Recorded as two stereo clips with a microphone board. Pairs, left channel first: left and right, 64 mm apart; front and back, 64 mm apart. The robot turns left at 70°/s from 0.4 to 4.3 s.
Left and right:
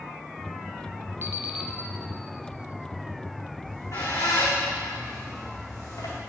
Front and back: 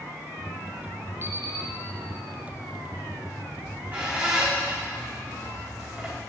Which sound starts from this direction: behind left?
A squeak, at 3.6 s.